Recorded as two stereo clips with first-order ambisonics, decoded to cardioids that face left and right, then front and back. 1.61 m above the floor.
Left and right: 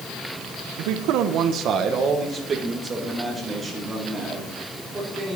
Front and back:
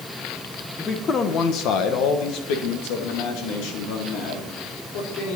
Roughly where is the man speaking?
Right.